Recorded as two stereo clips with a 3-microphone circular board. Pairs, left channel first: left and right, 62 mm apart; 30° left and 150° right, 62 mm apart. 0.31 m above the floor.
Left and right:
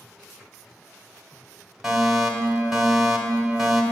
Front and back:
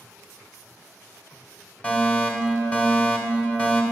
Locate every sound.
1.8 s a fire alarm: 5° right, 1.9 m